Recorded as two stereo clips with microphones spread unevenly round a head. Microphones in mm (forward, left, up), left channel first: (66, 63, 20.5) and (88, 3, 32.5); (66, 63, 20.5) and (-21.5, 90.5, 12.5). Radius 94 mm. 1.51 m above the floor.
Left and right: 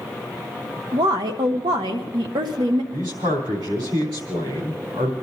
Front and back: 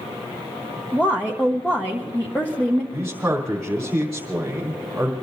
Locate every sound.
0.9 s a woman speaking: 100° right, 1.0 m
2.9 s a man speaking: 105° right, 3.5 m